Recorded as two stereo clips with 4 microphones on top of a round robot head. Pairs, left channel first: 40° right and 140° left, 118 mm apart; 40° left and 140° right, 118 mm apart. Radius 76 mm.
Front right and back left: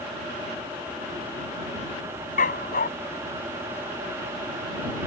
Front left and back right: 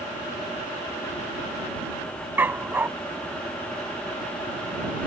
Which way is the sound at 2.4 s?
65° right.